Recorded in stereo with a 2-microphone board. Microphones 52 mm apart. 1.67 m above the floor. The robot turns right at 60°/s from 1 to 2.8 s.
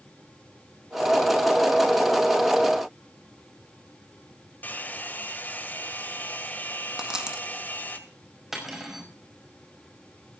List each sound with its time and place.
4.6 s a hair dryer: 35° left (ahead or behind), 1.8 m
7.0 s a dropped coin: 15° right (ahead or behind), 1.7 m
8.5 s cutlery clinking: 10° right (ahead or behind), 5 m